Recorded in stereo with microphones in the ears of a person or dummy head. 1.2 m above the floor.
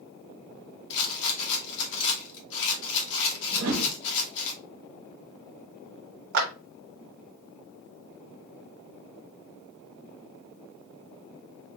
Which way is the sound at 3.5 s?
55° right (ahead or behind).